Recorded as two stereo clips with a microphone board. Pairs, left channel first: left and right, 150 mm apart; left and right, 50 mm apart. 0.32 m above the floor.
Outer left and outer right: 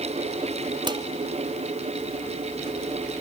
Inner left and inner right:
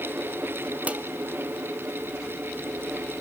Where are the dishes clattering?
30° right (ahead or behind), 1.1 m.